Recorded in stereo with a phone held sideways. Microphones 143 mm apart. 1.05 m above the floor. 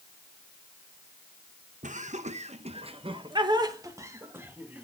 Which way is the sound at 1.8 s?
60° right (ahead or behind).